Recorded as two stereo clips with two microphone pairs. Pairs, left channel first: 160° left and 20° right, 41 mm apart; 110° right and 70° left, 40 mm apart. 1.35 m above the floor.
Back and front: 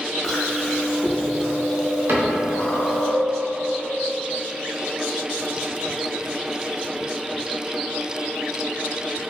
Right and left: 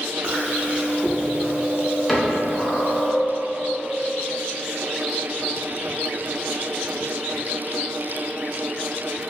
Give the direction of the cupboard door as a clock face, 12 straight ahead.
1 o'clock.